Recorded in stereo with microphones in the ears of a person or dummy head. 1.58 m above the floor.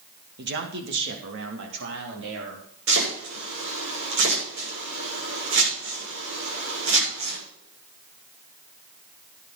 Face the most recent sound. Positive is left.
turn(degrees=-65)  # may be behind; listen again after turning